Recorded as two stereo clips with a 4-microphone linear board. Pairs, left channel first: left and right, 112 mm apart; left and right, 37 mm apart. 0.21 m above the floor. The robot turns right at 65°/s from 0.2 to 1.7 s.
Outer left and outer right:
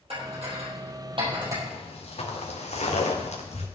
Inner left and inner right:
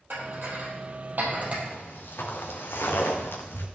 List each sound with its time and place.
0.1 s dishes clattering: 60° right (ahead or behind), 4.5 m; by 1.5 s 30° right (ahead or behind), 4.5 m
1.6 s footsteps: 70° left (ahead or behind), 3.5 m; by 3.7 s 80° left, 3 m